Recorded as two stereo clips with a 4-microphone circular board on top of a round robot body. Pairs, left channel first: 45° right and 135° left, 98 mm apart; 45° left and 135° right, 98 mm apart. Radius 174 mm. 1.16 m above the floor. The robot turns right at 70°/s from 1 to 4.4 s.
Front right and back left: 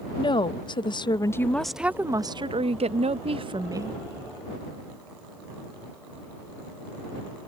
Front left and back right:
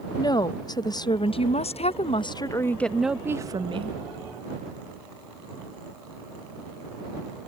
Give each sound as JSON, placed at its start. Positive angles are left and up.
{"t": 0.2, "sound": "a woman speaking", "azimuth_deg": -5}